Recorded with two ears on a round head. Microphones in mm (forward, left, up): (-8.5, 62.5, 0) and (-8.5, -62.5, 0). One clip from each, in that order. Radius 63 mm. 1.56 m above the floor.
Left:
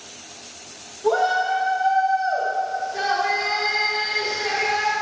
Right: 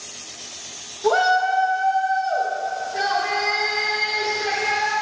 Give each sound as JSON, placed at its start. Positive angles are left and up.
{"t": 1.0, "sound": "a shout", "side_deg": -80, "distance_m": 0.6}